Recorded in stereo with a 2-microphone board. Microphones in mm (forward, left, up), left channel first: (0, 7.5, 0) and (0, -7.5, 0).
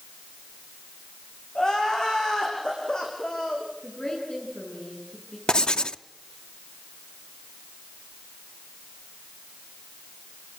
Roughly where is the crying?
Left.